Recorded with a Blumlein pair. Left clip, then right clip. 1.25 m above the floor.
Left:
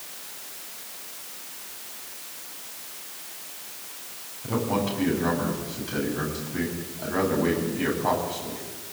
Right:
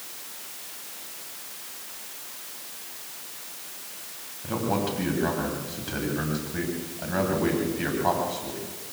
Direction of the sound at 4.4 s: 5° right.